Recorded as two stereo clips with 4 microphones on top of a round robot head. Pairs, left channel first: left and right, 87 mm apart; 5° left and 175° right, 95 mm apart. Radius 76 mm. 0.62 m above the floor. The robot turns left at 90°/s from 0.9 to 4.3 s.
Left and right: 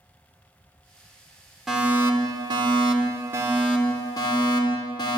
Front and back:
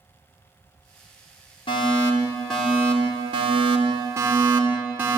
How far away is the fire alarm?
About 3.5 m.